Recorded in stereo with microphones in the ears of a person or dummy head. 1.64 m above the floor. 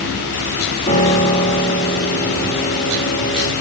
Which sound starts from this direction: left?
A piano, at 0.9 s.